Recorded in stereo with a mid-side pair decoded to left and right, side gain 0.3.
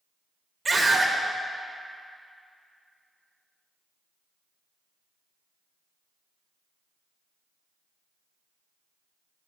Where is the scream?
50° right, 1.0 m.